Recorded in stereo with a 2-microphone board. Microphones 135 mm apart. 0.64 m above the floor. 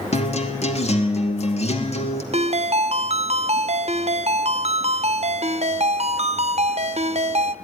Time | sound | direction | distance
0.1 | a guitar | 55° left (ahead or behind) | 2.5 m
2.3 | a ringtone | 50° right (ahead or behind) | 0.7 m